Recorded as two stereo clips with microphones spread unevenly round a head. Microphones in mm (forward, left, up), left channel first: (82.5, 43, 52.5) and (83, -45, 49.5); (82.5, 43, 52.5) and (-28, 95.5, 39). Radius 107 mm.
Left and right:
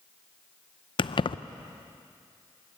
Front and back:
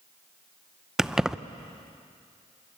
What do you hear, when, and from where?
1.0 s keys jangling: 70° left, 0.7 m